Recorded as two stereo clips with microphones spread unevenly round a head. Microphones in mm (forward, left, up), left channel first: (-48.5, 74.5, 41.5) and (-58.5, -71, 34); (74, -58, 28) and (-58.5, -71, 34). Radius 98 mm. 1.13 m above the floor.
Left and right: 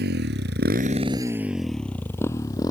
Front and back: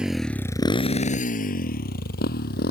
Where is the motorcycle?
90° right; by 2.7 s 15° left.